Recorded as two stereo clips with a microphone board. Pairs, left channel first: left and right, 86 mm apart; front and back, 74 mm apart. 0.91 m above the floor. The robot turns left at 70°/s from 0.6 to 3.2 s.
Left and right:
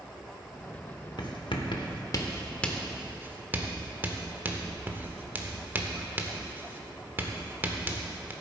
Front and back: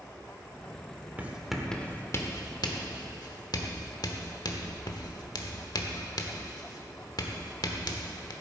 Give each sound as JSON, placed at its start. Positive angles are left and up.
{"t": 1.2, "sound": "writing", "azimuth_deg": 120, "distance_m": 1.0}